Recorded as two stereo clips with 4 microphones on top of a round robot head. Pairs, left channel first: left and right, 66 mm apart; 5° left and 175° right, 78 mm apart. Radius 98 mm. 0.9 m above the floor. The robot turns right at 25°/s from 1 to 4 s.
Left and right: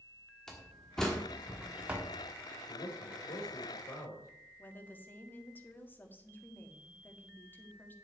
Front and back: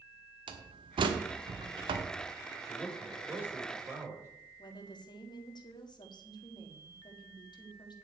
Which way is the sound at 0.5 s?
175° left.